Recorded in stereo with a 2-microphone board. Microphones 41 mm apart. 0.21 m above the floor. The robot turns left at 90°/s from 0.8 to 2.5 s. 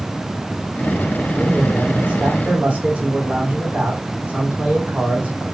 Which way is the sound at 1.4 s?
25° left.